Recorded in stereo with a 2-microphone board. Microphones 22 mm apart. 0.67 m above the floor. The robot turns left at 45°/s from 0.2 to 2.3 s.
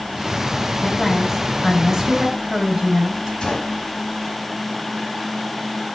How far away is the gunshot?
About 5.5 m.